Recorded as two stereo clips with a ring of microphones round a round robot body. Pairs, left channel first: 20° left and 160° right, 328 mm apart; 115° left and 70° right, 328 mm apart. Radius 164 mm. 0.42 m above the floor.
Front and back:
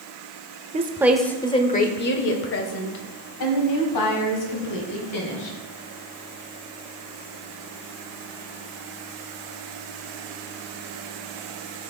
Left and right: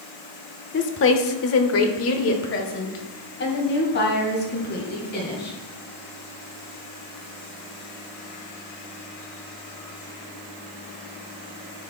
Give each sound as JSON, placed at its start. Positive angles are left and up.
{"t": 0.7, "sound": "a woman speaking", "azimuth_deg": 145, "distance_m": 1.0}